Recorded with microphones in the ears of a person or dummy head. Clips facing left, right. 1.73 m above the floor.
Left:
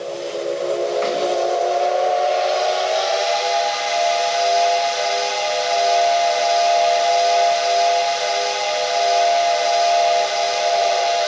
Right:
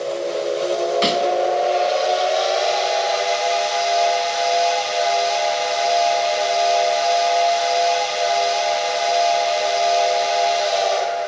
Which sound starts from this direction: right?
A snare drum, at 1.0 s.